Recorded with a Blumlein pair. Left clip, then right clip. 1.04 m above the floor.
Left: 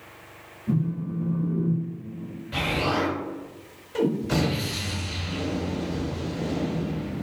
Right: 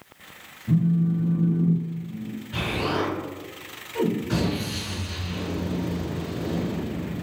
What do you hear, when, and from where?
0.7 s a phone buzzing: 70° left, 1.2 m
2.5 s an explosion: 55° left, 1.3 m